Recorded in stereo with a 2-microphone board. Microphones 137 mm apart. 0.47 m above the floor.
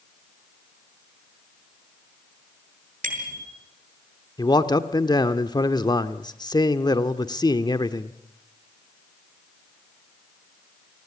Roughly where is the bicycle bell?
Right.